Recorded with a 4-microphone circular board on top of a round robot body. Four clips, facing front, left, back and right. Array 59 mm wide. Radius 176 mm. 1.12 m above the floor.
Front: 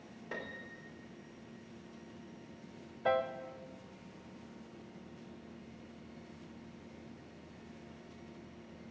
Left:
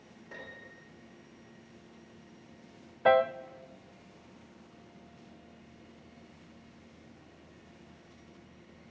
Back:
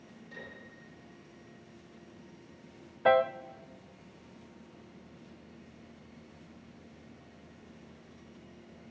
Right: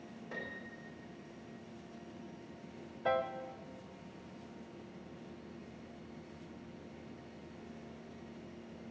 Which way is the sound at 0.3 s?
5° right.